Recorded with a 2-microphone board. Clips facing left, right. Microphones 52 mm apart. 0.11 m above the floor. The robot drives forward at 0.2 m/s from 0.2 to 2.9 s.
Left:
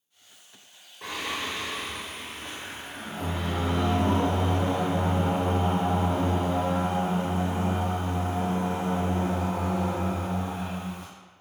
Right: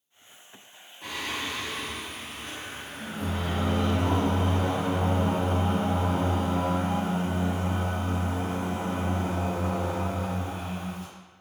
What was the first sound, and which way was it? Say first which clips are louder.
Singing: left 1 dB; 65° left (ahead or behind).